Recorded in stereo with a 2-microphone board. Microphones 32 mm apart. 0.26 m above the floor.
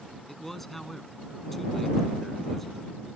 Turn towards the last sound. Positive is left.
turn(degrees=10)  # may be behind; listen again after turning